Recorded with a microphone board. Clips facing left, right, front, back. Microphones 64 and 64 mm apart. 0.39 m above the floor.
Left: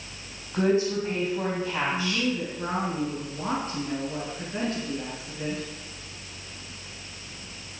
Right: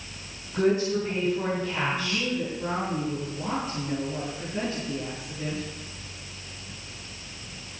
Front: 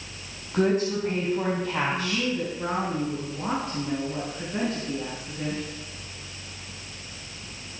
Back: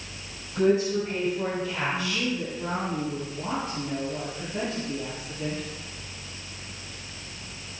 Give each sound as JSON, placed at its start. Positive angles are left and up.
{"t": 0.5, "sound": "a woman speaking", "azimuth_deg": 30, "distance_m": 3.5}
{"t": 1.9, "sound": "a woman speaking", "azimuth_deg": 50, "distance_m": 4.5}